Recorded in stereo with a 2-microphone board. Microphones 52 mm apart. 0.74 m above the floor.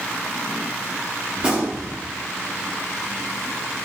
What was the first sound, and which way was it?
A gunshot, 20° right (ahead or behind).